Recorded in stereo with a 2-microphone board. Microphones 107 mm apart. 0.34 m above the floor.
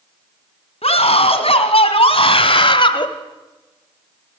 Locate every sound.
0.8 s a scream: 70° left (ahead or behind), 3 m; by 3.1 s 50° left (ahead or behind), 1.5 m